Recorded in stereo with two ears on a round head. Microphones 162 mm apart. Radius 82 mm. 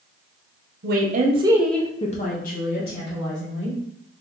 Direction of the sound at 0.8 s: 55° right (ahead or behind).